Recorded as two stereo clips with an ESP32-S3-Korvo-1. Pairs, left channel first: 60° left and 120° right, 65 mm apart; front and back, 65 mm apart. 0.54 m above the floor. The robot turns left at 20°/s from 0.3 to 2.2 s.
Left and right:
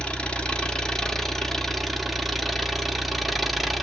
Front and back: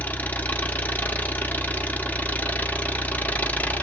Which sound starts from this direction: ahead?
An engine running, at 0.0 s.